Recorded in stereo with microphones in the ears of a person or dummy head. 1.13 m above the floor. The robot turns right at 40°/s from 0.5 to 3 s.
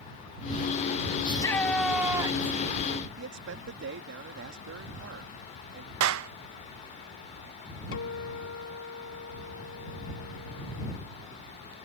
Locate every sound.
1.2 s a shout: 155° left; by 2.6 s 150° right
3.2 s a man speaking: 55° right (ahead or behind)
6.0 s a clap: 70° right (ahead or behind)
7.9 s a guitar: 65° left (ahead or behind)